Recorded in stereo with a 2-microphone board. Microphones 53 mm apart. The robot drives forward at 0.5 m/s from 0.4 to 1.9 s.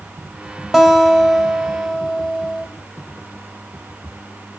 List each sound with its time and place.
0.7 s a guitar: 5° right (ahead or behind), 1.6 m; by 2.7 s 10° right (ahead or behind), 1.1 m